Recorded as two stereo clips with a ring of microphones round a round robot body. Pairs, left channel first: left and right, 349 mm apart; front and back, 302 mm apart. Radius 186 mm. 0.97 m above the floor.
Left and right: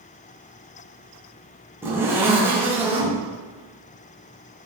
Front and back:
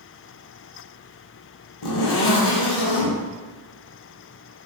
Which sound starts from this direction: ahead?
A zipper, at 1.8 s.